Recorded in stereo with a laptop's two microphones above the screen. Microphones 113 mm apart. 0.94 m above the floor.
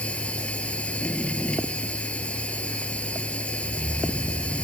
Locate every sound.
0.0 s a machine running: 10° left (ahead or behind)